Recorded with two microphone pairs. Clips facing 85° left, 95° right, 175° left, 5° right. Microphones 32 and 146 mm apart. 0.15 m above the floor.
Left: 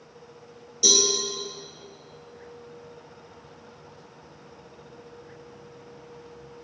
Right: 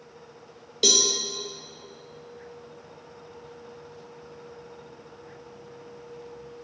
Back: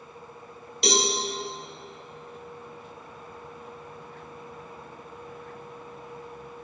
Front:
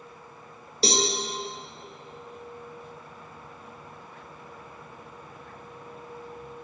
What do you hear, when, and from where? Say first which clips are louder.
0.8 s a cowbell: even, even; 60° right, 1.4 m